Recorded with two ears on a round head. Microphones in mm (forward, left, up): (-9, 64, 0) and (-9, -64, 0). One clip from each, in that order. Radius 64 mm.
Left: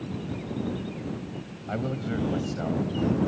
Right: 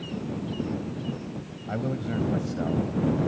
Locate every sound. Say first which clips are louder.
1.7 s a man speaking: even; 15° left (ahead or behind)